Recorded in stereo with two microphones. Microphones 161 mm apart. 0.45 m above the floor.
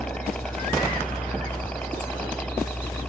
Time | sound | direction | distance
0.0 | a helicopter | 5° left (ahead or behind) | ?